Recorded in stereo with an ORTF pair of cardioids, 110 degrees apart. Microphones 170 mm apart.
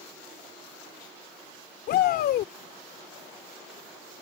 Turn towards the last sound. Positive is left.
turn(degrees=70)